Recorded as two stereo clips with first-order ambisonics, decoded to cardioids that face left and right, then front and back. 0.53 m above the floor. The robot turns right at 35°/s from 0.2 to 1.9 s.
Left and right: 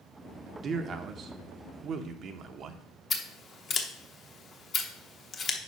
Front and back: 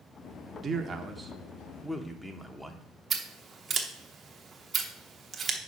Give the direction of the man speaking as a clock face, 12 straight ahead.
4 o'clock.